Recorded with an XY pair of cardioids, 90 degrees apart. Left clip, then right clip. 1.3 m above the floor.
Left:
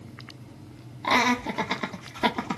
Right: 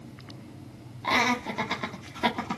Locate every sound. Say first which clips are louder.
1.0 s laughter: left 2 dB; 30° left, 1.2 m